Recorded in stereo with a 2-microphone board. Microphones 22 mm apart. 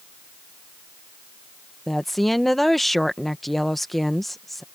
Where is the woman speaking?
10° left (ahead or behind).